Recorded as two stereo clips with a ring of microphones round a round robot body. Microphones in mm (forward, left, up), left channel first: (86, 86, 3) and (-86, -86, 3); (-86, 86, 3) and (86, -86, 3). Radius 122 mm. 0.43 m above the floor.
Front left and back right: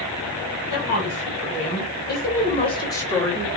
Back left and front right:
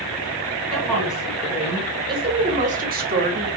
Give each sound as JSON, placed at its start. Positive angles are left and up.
{"t": 0.7, "sound": "a woman speaking", "azimuth_deg": 50, "distance_m": 1.4}